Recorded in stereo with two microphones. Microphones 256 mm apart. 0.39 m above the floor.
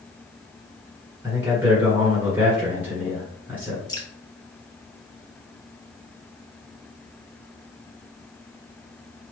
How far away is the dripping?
About 0.9 m.